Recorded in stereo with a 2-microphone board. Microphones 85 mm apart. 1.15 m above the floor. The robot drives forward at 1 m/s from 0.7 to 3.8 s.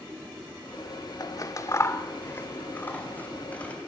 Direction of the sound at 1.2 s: 45° left (ahead or behind).